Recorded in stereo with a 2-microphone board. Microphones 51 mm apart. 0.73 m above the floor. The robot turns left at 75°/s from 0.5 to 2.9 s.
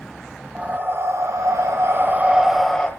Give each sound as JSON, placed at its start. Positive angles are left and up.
{"t": 0.6, "sound": "breathing", "azimuth_deg": -25, "distance_m": 1.6}